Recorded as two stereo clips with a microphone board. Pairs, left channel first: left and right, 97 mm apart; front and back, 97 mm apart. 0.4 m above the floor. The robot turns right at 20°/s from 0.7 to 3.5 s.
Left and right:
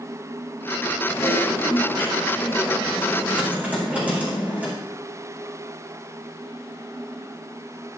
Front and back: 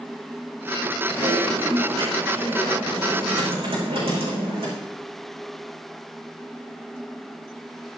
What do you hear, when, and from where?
1.1 s typing on a keyboard: 150° left, 5.5 m; by 4.7 s 165° right, 5.5 m